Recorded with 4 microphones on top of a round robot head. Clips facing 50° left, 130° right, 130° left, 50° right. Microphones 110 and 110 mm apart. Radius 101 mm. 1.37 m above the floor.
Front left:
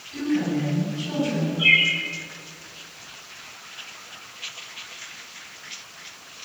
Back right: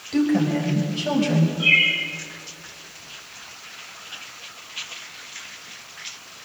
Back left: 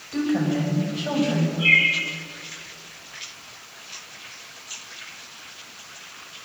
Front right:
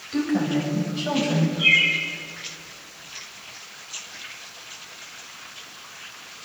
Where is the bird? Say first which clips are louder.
Even, back left 1 dB; 35° left, 6.5 m.